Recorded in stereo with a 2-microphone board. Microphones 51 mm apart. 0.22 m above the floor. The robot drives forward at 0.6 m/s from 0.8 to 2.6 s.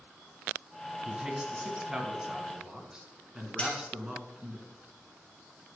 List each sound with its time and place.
1.1 s a man speaking: 20° right (ahead or behind), 1.8 m; by 4.6 s 15° right (ahead or behind), 2.5 m
3.6 s cutlery clinking: 25° left (ahead or behind), 2.5 m